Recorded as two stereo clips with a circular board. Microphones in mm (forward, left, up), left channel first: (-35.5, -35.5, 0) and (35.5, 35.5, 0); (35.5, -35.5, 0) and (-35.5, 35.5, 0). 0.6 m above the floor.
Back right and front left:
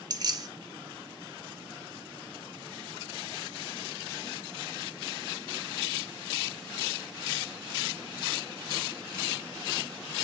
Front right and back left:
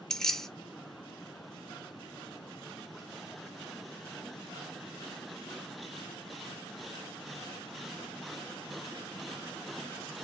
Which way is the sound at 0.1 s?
40° left.